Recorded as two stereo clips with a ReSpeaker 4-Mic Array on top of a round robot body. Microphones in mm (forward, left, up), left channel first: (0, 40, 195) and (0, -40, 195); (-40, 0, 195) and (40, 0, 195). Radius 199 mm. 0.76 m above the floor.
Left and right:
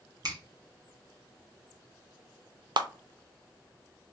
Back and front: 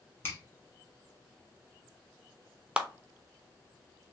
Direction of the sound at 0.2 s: 125° right.